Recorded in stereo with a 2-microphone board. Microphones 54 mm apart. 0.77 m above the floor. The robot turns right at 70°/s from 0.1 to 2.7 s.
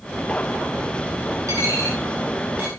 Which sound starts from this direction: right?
A dropped coin, at 1.5 s.